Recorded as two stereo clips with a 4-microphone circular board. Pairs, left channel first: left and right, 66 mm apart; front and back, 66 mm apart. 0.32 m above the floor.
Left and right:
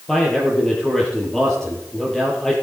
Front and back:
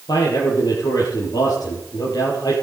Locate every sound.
0.1 s a man speaking: 10° left, 6.5 m